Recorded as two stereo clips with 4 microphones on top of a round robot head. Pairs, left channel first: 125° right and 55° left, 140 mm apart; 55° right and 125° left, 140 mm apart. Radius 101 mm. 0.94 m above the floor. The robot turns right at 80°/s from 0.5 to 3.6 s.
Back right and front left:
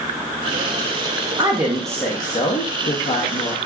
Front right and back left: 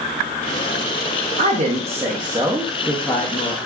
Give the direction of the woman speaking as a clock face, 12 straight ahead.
8 o'clock.